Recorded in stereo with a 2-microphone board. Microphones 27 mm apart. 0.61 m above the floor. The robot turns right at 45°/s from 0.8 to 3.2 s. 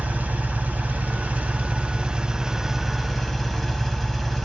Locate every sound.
0.0 s an engine running: 100° right, 1.8 m; by 4.5 s 5° left, 1.8 m